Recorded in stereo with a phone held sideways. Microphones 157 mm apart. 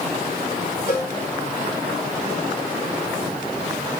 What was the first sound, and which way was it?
A cowbell, 80° left.